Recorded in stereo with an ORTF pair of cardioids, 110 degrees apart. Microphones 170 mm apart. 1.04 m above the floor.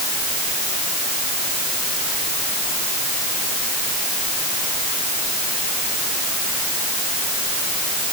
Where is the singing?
No singing in this recording.